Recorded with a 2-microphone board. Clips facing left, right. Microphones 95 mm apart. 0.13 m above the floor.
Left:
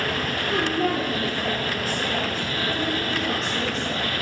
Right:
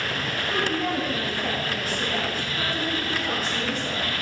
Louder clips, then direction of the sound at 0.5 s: Left 3 dB; 50° left (ahead or behind).